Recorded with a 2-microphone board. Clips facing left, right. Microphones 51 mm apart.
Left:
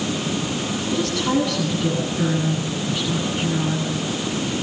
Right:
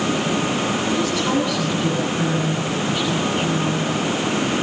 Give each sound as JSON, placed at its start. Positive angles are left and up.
{"t": 0.9, "sound": "a woman speaking", "side_deg": -10, "distance_m": 8.5}